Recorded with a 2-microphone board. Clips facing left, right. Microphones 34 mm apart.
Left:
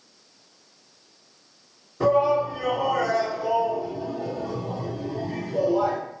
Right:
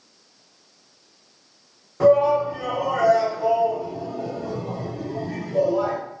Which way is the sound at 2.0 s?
50° right (ahead or behind).